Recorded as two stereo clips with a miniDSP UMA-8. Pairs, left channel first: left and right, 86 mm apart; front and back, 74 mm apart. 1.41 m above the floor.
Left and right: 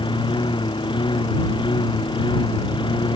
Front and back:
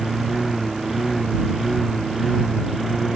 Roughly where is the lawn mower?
Left.